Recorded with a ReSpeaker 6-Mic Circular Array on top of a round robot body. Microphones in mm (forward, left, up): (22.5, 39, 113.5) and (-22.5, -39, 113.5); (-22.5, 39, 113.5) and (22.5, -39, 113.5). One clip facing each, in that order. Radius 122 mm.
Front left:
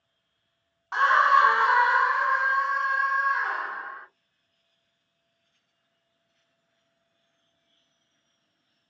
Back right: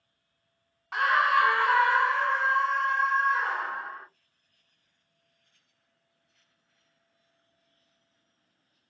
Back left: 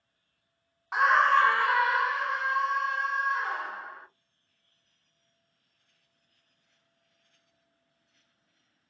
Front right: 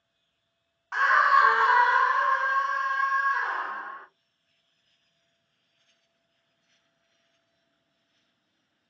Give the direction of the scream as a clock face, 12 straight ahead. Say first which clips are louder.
Front left 4 dB, front right 1 dB; 10 o'clock.